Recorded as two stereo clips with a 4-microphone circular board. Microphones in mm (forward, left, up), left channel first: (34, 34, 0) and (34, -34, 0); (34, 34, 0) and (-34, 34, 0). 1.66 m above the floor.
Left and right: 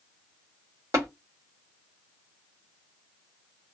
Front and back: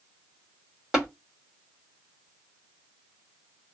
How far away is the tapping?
About 1.8 m.